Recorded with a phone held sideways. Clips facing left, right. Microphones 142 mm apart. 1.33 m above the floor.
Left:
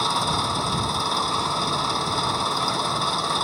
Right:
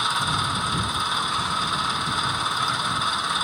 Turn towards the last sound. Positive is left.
turn(degrees=35)  # may be behind; listen again after turning